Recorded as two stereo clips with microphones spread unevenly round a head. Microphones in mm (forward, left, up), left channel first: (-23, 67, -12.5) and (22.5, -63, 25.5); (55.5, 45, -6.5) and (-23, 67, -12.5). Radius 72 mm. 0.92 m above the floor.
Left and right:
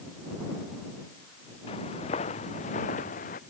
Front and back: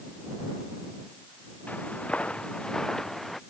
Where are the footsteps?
55° left; by 3.4 s 70° left.